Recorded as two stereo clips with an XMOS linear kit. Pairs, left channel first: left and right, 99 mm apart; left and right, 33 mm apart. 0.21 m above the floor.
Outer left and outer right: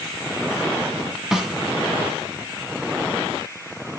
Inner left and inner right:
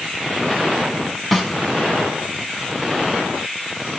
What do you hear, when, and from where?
1.3 s a snare drum: 5° right (ahead or behind), 2 m